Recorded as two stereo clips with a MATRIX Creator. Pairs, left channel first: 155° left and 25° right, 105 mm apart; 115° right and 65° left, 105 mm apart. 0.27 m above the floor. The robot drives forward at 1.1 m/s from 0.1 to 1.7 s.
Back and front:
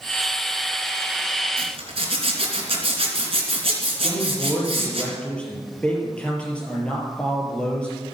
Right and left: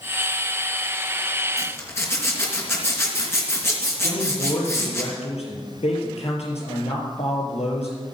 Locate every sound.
1.6 s a zipper: 45° right, 3.5 m; by 5.0 s 50° right, 3 m
4.0 s a man speaking: 125° right, 5 m